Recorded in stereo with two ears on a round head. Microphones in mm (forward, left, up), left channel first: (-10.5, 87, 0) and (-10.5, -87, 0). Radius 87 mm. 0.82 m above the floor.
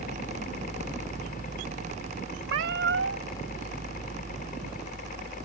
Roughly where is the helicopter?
Left.